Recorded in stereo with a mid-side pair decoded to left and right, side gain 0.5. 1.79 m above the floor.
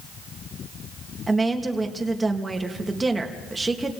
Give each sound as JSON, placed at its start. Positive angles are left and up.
{"t": 1.3, "sound": "a woman speaking", "azimuth_deg": -15, "distance_m": 3.5}